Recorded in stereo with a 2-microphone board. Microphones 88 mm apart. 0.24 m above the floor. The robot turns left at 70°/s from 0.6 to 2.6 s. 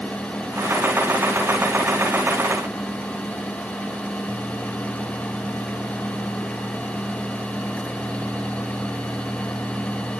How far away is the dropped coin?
No dropped coin in this recording.